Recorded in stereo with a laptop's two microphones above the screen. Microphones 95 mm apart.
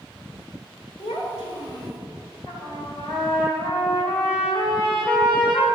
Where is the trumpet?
30° left (ahead or behind), 3 m.